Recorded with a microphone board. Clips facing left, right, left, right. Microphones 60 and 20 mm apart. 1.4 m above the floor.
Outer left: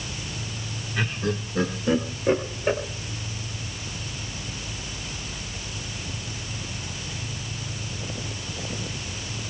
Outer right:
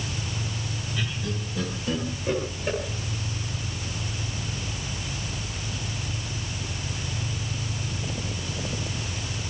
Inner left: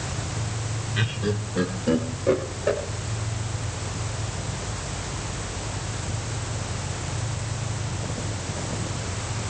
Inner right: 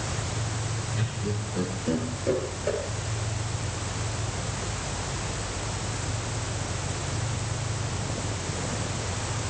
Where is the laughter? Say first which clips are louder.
Outer left 7 dB, inner left 9 dB; 60° left (ahead or behind), 1.8 m; by 2.8 s 25° left (ahead or behind), 3 m.